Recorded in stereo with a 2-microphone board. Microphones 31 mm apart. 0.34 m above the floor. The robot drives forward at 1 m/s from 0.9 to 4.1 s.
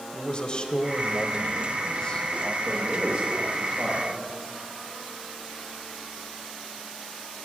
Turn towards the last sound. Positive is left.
turn(degrees=-45)  # may be behind; listen again after turning